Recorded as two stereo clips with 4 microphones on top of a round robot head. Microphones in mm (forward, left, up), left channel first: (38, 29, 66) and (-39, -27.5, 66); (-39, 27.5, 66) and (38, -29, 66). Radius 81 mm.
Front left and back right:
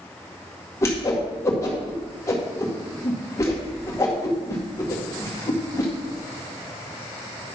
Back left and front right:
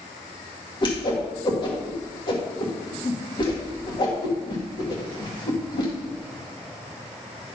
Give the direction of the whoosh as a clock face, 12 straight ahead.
9 o'clock.